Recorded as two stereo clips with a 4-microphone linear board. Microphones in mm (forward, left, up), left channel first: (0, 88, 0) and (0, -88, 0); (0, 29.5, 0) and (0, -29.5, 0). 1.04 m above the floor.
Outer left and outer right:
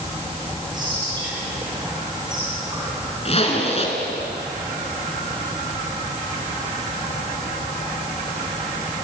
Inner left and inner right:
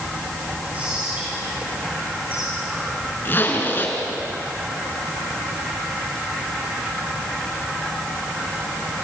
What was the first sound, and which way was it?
Whispering, 25° right (ahead or behind).